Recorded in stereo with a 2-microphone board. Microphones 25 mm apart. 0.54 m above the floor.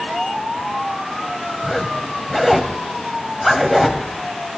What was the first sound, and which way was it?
A zipper, centre (ahead or behind).